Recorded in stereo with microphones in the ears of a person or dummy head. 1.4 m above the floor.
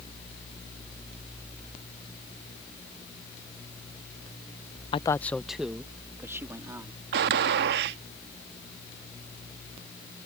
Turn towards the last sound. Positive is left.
turn(degrees=-55)  # may be behind; listen again after turning